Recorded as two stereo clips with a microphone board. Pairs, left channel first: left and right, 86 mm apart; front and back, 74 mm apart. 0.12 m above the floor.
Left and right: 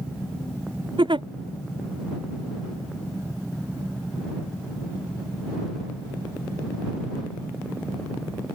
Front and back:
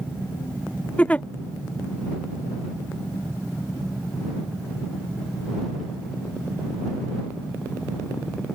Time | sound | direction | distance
1.0 | a giggle | 75° right | ?